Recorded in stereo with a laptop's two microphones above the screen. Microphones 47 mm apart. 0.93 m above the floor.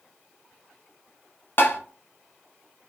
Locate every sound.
1.6 s tapping: 50° left (ahead or behind), 0.6 m